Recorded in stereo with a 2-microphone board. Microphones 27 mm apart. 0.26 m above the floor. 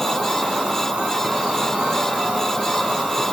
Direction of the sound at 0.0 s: 45° right (ahead or behind).